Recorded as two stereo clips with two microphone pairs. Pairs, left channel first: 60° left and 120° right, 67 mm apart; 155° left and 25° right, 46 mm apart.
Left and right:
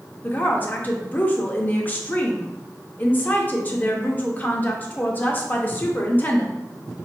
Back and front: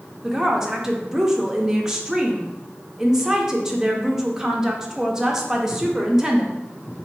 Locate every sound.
0.2 s a woman speaking: 35° left, 0.6 m